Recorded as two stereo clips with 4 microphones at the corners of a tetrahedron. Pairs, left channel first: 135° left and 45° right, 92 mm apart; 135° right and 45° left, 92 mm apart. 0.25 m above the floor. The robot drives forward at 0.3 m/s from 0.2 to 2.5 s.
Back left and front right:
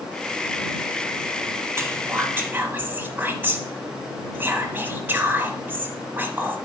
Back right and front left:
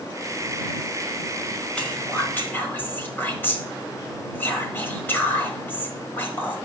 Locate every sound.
1.8 s whispering: 70° right, 1.2 m; by 6.6 s 90° right, 1.1 m